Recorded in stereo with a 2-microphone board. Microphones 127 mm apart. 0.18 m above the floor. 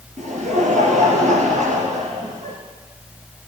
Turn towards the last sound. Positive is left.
turn(degrees=-70)  # may be behind; listen again after turning